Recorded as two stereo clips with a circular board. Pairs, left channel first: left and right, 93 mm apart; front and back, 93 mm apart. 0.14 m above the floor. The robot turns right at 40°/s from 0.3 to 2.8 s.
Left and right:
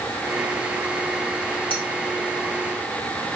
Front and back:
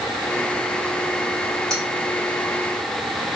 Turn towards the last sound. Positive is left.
turn(degrees=125)